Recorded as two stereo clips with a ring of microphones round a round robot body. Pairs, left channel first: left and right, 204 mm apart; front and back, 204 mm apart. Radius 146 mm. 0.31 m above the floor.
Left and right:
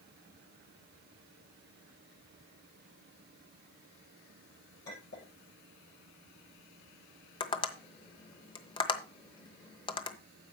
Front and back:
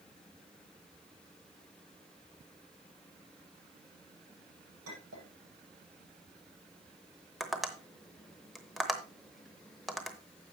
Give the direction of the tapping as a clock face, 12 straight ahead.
9 o'clock.